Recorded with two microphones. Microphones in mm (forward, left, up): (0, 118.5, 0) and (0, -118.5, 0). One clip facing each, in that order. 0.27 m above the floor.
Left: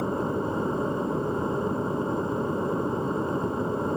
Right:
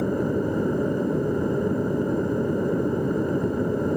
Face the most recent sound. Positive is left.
turn(degrees=-15)  # may be behind; listen again after turning